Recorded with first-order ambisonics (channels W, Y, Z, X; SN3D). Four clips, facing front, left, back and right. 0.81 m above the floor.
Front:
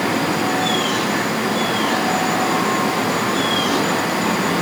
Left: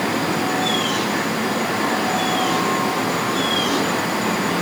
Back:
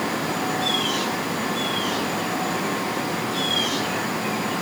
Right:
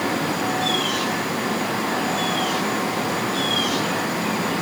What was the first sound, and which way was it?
Only background noise.